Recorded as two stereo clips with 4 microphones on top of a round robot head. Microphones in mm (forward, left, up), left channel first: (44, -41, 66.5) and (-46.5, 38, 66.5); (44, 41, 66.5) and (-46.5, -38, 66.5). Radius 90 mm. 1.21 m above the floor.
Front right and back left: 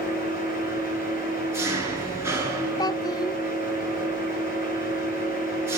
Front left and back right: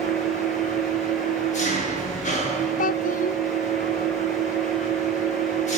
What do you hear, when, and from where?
0.0 s an engine running: 70° left, 9 m
2.8 s a child speaking: 20° left, 0.7 m